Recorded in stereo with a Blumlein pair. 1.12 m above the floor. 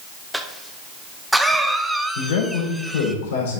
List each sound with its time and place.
0.3 s a cough: straight ahead, 0.6 m
2.1 s a man speaking: 50° left, 4 m